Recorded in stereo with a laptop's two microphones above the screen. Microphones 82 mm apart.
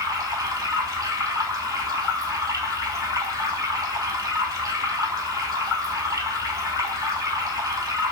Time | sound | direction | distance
0.0 | running water | 45° right (ahead or behind) | 1.9 m